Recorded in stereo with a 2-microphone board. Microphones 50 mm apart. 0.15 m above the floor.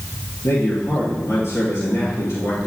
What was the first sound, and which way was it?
A man speaking, 70° left (ahead or behind).